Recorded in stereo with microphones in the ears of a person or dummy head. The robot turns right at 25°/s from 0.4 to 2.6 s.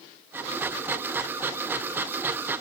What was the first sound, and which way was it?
Only background noise.